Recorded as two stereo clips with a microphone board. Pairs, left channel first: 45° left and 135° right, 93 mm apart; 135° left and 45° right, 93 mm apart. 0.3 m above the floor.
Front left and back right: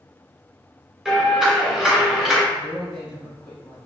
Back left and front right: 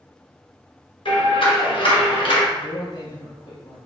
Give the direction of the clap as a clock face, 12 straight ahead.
7 o'clock.